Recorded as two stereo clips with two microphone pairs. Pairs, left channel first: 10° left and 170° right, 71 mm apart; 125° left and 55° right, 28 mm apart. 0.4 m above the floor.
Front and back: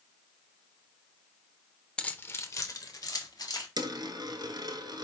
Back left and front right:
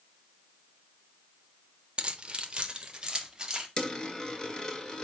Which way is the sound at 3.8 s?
170° right.